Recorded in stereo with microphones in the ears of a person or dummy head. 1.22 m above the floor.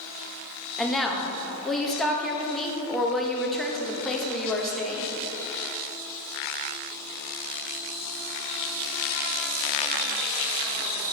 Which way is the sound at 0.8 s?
5° left (ahead or behind).